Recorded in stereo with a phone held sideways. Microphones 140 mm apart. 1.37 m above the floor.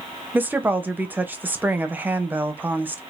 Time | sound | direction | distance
0.3 | a woman speaking | 15° right (ahead or behind) | 0.7 m